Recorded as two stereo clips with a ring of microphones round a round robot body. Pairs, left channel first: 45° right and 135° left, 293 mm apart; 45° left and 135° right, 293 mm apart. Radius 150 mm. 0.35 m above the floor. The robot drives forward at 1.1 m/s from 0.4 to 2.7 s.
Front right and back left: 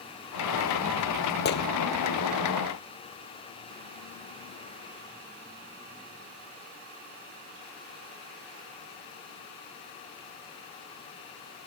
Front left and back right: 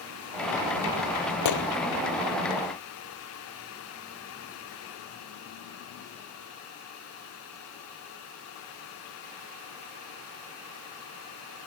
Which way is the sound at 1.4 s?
10° left.